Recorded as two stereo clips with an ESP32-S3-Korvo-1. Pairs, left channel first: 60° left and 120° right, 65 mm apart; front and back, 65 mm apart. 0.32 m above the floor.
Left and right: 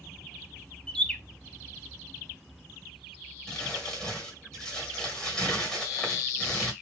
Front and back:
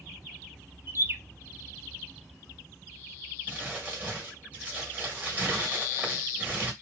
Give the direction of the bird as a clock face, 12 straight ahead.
8 o'clock.